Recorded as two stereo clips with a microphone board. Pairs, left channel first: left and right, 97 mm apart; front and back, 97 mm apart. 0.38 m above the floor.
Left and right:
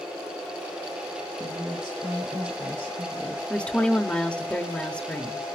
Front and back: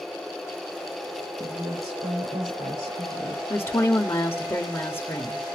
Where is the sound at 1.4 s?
170° right, 6.5 m.